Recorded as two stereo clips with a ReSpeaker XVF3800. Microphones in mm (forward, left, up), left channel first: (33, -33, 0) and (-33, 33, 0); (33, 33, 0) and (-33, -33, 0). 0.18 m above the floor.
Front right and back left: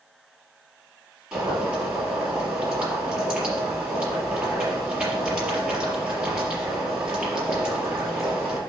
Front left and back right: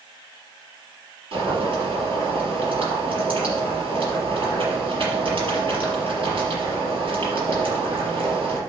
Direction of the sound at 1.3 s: 145° right.